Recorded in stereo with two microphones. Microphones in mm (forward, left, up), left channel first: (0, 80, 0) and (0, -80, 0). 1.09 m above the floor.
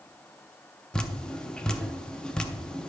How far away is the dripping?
About 0.6 m.